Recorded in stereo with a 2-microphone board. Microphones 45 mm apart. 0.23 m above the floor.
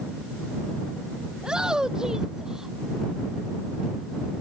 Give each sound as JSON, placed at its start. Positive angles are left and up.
{"t": 1.4, "sound": "a shout", "side_deg": -20}